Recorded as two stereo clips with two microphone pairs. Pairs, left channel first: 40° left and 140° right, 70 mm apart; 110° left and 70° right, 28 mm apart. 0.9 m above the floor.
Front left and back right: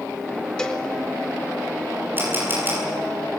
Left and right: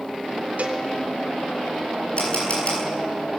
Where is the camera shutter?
155° left, 9 m.